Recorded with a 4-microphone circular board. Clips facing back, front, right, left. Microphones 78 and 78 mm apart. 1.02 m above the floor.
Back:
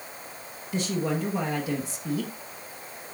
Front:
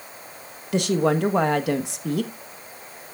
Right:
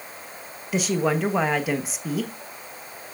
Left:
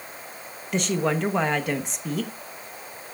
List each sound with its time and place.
0.7 s a woman speaking: 5° right, 1.0 m